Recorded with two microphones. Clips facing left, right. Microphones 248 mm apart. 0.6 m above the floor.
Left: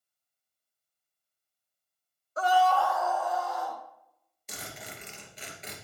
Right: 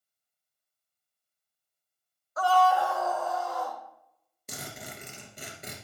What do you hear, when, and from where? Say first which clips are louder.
2.4 s a scream: right 1 dB; 30° left (ahead or behind), 0.7 m; by 3.8 s 55° right (ahead or behind), 1.7 m
4.5 s a zipper: right 2 dB; 50° right (ahead or behind), 2 m